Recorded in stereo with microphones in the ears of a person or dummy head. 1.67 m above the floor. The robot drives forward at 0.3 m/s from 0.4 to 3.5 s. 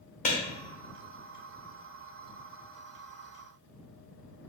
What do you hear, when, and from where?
0.2 s a clap: 40° left (ahead or behind), 0.9 m